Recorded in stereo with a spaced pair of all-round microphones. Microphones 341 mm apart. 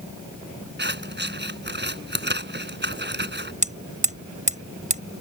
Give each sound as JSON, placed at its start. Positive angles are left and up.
{"t": 0.8, "sound": "scissors", "side_deg": -30}
{"t": 3.6, "sound": "hammering", "side_deg": -20}